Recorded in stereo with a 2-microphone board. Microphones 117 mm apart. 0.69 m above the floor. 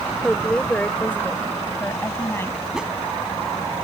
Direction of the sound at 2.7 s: 5° right (ahead or behind).